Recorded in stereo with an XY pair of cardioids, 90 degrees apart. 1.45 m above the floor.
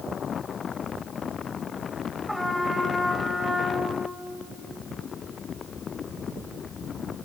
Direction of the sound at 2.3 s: 10° left.